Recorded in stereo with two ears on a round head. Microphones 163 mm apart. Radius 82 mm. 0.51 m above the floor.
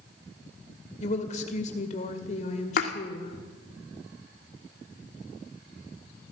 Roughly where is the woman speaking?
Left.